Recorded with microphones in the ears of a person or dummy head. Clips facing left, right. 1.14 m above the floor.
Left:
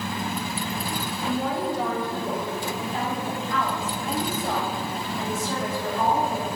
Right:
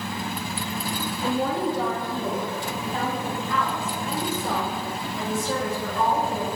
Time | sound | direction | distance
1.2 | a woman speaking | 75° right (ahead or behind) | 1.6 m